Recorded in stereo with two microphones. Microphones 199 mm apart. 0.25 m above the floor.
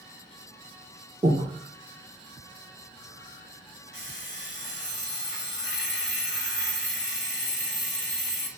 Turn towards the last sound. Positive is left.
turn(degrees=70)  # may be behind; listen again after turning